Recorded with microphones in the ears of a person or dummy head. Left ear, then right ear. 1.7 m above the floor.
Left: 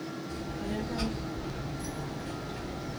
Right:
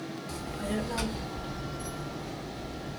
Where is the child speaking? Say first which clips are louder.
Right 3 dB; 55° right (ahead or behind), 0.9 m; by 3.0 s 50° left (ahead or behind), 0.8 m.